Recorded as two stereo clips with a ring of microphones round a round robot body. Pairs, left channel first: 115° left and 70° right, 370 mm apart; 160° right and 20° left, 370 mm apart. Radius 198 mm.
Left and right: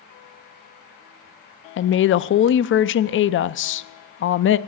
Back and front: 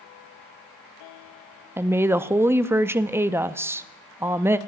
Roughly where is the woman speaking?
Left.